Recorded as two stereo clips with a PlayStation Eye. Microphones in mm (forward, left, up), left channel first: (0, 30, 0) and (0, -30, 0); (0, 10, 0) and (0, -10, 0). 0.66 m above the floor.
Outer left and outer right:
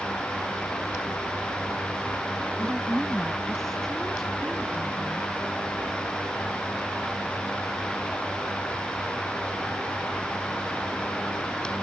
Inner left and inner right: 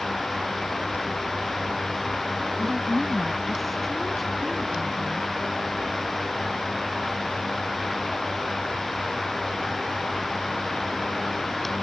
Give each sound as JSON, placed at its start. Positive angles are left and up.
{"t": 2.6, "sound": "a woman speaking", "side_deg": 0}